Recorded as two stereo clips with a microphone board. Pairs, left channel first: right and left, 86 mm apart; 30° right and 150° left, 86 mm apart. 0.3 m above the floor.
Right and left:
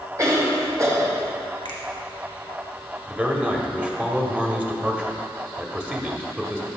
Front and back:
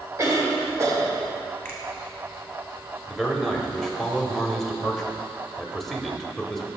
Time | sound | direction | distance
0.2 | a cough | 120° left | 1.5 m
1.6 | a finger snap | 95° right | 1.9 m
3.1 | a man speaking | 55° left | 0.9 m